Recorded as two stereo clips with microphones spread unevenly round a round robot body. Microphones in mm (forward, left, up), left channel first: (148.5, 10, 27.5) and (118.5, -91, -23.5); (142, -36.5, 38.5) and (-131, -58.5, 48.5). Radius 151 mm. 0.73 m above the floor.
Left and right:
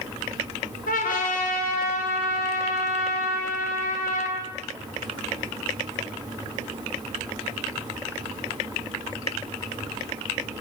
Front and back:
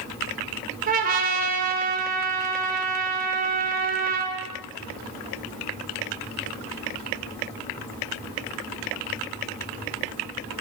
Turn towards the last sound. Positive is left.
turn(degrees=120)